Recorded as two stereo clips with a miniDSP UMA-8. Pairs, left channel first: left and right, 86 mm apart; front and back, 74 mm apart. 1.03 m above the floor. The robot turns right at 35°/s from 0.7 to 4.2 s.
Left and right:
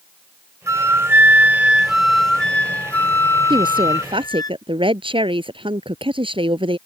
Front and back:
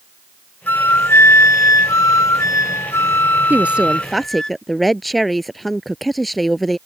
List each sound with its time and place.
0.7 s a flute: 50° right; by 4.5 s 75° left
3.5 s a woman speaking: 115° right; by 6.8 s 90° right